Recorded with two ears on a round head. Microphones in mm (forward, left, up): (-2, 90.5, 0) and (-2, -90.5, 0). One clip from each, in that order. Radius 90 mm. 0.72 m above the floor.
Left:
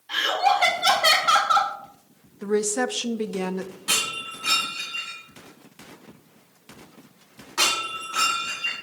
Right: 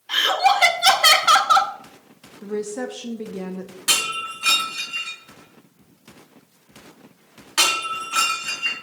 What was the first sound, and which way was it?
Laughter, 30° right (ahead or behind).